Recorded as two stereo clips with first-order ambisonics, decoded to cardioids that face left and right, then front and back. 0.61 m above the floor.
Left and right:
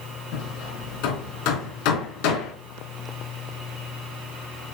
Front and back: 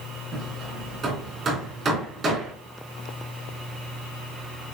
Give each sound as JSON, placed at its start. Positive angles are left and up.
{"t": 0.3, "sound": "hammering", "azimuth_deg": 115, "distance_m": 3.0}